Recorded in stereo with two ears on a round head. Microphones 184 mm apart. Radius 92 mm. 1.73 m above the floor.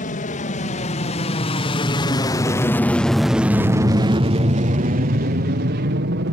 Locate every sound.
0.0 s an aircraft: 40° left (ahead or behind); by 6.3 s 55° right (ahead or behind)